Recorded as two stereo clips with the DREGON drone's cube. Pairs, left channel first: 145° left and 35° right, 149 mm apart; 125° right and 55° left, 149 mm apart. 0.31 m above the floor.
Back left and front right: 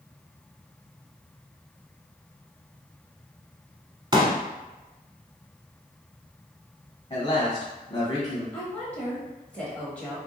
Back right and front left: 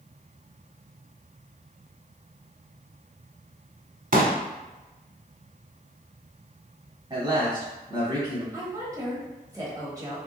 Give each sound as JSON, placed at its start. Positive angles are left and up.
{"t": 4.1, "sound": "a pop", "azimuth_deg": 25, "distance_m": 0.6}
{"t": 7.1, "sound": "a man speaking", "azimuth_deg": 100, "distance_m": 1.4}
{"t": 8.5, "sound": "a woman speaking", "azimuth_deg": 75, "distance_m": 1.0}